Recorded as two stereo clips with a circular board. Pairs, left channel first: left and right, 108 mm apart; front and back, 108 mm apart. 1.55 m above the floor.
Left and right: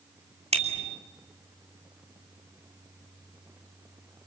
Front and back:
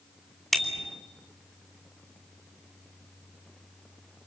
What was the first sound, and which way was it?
A bicycle bell, 90° right.